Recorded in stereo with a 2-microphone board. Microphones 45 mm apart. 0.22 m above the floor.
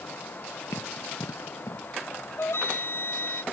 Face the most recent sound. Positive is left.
turn(degrees=60)  # may be behind; listen again after turning